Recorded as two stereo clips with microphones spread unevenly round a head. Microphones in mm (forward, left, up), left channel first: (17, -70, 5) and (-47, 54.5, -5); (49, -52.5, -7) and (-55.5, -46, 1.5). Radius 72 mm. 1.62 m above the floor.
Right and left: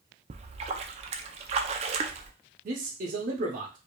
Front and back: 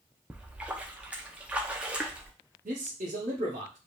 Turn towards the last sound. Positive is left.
turn(degrees=145)